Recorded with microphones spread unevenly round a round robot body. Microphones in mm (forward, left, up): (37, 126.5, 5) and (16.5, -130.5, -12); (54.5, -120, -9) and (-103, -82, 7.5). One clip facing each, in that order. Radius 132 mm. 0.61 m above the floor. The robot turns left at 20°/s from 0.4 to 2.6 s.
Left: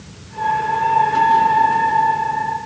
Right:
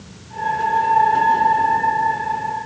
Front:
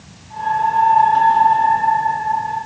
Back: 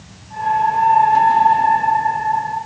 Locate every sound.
Only background noise.